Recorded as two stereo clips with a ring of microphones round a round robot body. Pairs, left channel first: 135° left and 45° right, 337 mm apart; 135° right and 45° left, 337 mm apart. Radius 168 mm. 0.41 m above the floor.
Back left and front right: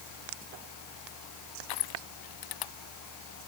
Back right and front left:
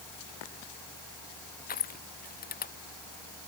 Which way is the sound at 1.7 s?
160° left.